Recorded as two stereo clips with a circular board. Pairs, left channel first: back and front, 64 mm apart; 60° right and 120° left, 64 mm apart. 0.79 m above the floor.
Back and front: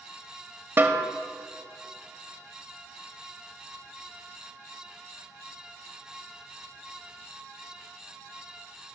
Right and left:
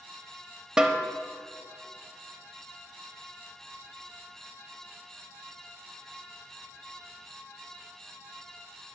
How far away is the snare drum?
About 0.7 m.